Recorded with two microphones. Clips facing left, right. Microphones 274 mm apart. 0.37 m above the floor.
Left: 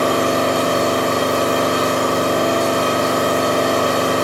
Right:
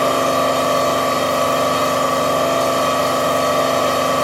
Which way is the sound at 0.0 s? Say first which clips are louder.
Left 1 dB; 45° left (ahead or behind).